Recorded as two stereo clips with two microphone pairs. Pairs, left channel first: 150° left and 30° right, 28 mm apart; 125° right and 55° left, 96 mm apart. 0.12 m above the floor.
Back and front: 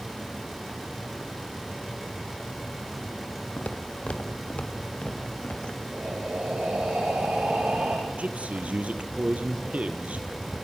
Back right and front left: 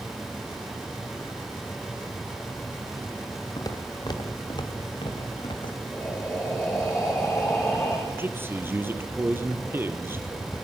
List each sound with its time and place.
3.6 s footsteps: straight behind, 3 m; by 5.8 s 160° right, 5 m
5.9 s breathing: 50° right, 7 m
8.1 s a man speaking: 10° right, 2.5 m